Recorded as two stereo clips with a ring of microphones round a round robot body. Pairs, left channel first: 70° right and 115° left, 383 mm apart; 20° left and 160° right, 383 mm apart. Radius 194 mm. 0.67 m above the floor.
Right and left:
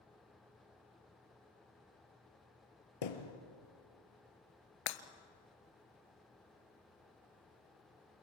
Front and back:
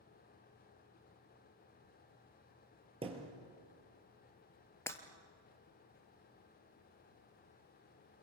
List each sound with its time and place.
3.0 s a thud: 80° right, 3 m
4.9 s breaking glass: 60° right, 1.3 m